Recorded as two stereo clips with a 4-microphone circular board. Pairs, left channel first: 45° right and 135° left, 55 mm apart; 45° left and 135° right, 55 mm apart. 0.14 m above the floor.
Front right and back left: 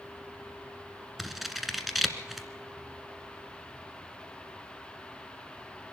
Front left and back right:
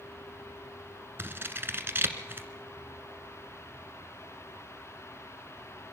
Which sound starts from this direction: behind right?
Scissors, at 1.2 s.